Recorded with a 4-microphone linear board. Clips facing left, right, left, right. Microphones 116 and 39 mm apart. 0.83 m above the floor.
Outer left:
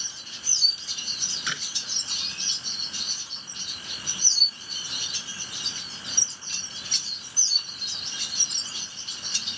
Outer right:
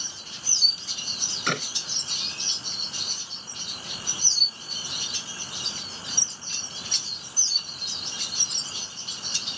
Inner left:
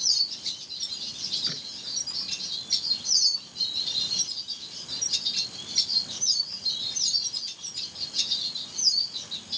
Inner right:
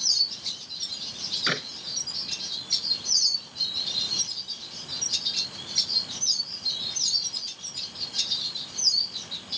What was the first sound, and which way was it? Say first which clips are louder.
A clap: outer right 8 dB, inner right 9 dB; 55° right (ahead or behind).